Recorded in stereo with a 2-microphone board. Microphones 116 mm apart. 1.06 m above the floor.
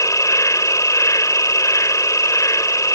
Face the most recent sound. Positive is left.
turn(degrees=25)  # may be behind; listen again after turning